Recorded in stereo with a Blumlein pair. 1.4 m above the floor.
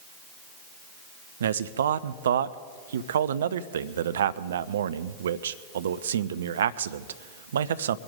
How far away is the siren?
I don't hear a siren.